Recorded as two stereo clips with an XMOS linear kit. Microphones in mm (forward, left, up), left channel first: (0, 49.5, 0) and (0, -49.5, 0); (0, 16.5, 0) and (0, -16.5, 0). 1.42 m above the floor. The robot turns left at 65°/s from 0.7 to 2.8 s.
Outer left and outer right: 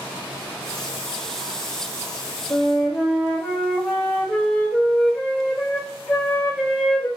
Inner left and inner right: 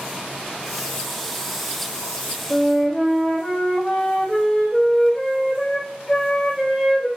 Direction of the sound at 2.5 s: 30° left (ahead or behind).